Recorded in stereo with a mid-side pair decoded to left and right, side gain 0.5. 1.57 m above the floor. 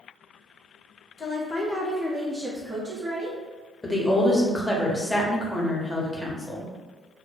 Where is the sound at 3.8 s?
10° left, 0.8 m.